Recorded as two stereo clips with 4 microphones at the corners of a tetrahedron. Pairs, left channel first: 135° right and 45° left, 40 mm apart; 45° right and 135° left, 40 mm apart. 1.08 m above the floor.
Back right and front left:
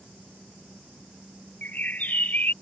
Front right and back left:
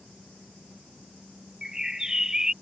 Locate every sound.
1.6 s a bird: 155° right